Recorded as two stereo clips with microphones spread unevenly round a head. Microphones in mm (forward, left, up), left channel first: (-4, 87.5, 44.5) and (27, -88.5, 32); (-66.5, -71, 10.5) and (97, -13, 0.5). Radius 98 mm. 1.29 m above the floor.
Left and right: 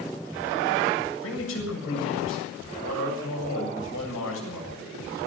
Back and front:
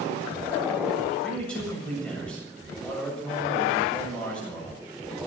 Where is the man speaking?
115° left, 7.5 m.